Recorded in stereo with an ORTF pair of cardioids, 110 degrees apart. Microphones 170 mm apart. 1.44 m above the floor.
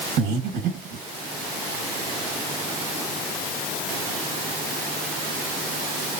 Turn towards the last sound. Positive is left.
turn(degrees=-70)